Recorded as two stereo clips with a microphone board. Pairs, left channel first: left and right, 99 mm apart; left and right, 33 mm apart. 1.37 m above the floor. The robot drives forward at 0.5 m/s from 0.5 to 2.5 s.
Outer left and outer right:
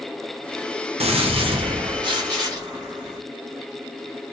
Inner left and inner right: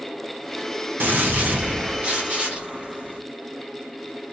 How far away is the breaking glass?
No breaking glass in this recording.